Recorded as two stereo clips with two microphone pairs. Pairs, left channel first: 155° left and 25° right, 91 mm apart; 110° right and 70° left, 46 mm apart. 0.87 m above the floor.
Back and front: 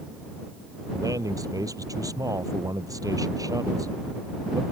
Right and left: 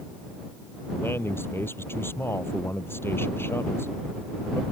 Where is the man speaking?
75° right.